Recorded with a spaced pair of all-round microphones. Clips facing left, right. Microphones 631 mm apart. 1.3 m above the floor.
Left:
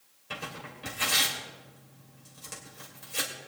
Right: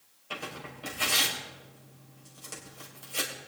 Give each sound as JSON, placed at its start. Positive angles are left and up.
{"t": 0.3, "sound": "tearing paper", "side_deg": 45, "distance_m": 2.5}